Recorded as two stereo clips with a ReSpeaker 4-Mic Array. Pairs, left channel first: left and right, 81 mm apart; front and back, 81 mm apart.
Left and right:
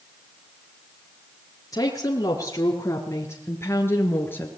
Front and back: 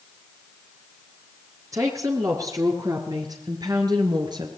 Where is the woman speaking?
135° left, 5 m; by 4.5 s 155° left, 5 m.